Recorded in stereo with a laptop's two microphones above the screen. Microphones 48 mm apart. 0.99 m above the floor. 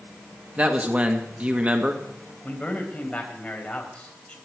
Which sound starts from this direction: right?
A man speaking, at 0.6 s.